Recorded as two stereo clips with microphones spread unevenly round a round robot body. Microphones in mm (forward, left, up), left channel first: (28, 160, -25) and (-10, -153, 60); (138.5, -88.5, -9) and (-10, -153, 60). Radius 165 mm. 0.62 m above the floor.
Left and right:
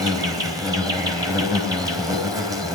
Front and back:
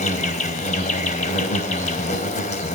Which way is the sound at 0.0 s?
15° right.